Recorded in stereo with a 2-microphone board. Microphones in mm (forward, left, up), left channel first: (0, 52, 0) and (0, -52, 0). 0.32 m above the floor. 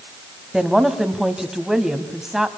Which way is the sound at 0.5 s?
5° right (ahead or behind).